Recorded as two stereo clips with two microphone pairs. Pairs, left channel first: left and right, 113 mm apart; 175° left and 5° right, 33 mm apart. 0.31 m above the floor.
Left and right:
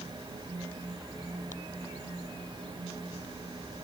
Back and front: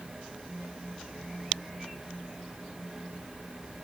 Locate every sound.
Only background noise.